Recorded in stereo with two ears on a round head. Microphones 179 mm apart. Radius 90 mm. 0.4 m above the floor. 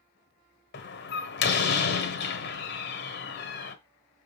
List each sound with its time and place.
0.7 s a door slam: 55° left (ahead or behind), 1.3 m